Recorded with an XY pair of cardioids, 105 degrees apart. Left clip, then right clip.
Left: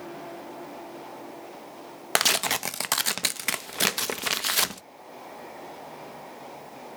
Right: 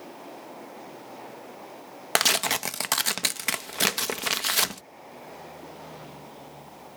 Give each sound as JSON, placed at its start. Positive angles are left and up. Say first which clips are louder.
{"t": 2.1, "sound": "tearing paper", "louder": "even", "azimuth_deg": -5, "distance_m": 0.5}